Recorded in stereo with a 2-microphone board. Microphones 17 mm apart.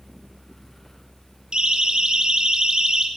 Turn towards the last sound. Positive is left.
turn(degrees=-45)  # may be behind; listen again after turning